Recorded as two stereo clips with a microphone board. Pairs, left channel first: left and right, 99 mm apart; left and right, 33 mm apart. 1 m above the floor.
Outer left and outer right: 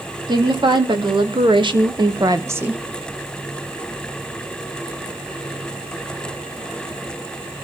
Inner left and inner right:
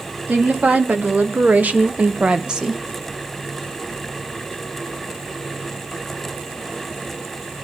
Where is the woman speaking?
55° right (ahead or behind), 2 m; by 2.8 s 10° right (ahead or behind), 0.9 m.